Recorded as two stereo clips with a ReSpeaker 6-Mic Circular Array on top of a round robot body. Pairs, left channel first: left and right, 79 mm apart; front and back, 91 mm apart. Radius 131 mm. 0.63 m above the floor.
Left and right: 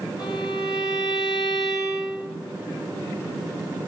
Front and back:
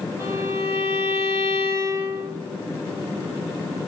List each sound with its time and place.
0.2 s a violin: 115° left, 4.5 m